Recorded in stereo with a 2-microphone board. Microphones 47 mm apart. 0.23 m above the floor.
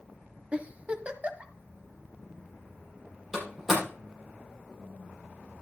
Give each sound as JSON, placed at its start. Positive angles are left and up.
{"t": 0.5, "sound": "a giggle", "side_deg": -25, "distance_m": 1.4}
{"t": 3.3, "sound": "a door slam", "side_deg": -5, "distance_m": 7.0}